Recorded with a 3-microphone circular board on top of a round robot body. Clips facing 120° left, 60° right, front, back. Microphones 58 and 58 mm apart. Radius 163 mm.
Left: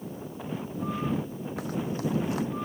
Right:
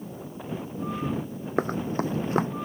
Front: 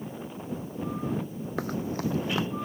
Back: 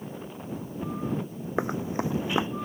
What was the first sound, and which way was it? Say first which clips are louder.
Running footsteps: right 5 dB, back 2 dB; 110° right.